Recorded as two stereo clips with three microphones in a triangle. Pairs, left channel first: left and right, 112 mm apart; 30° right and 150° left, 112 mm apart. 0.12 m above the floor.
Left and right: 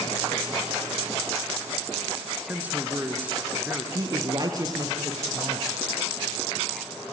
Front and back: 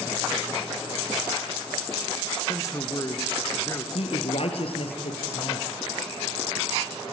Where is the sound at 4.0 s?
40° right, 2.5 m.